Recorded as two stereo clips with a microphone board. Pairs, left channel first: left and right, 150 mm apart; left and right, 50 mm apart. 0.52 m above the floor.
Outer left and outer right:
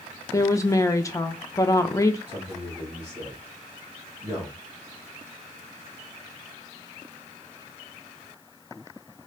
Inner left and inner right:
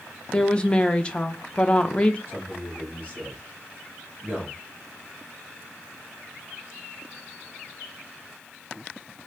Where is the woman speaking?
20° left (ahead or behind), 0.6 m.